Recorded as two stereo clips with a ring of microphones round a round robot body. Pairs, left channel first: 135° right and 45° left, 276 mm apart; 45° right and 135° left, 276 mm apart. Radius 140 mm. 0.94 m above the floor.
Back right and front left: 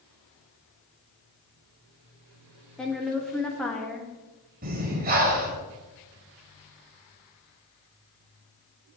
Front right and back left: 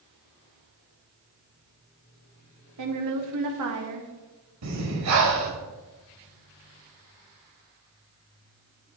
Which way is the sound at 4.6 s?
105° left.